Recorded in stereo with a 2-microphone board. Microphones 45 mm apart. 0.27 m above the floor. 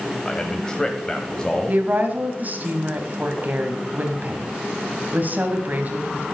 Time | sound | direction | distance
0.2 | a man speaking | 15° left (ahead or behind) | 1.2 m
1.7 | a woman speaking | 35° right (ahead or behind) | 1.8 m